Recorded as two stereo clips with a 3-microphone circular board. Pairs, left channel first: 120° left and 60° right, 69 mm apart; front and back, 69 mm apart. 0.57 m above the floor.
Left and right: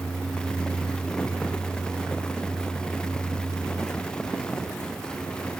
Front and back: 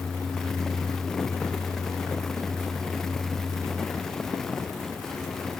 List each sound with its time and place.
Only background noise.